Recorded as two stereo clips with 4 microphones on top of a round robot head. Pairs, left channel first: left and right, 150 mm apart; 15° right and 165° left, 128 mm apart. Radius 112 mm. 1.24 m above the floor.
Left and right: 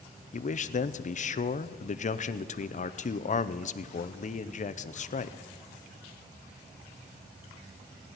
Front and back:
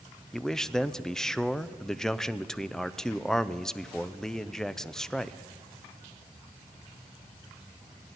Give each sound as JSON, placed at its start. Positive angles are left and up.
{"t": 0.3, "sound": "a man speaking", "azimuth_deg": 70, "distance_m": 0.6}